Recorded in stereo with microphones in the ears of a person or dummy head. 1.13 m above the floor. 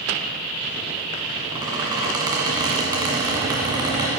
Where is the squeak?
20° right (ahead or behind), 2 m.